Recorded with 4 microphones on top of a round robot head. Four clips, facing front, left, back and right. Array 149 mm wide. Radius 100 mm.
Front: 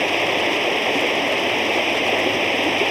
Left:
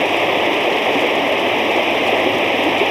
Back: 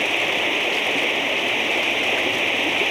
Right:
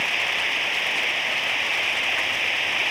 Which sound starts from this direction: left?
Running water, at 0.0 s.